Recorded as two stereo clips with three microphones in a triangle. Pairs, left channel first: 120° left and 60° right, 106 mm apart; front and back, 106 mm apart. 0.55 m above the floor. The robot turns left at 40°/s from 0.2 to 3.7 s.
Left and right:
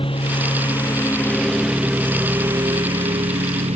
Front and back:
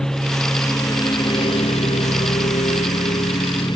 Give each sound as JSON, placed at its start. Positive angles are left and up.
{"t": 0.0, "sound": "a lawn mower", "azimuth_deg": 85}